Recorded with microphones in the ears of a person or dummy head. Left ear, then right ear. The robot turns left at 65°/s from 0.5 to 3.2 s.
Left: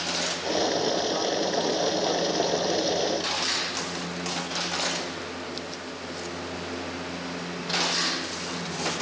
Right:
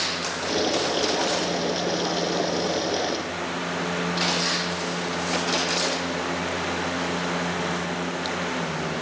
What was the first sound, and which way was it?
Only background noise.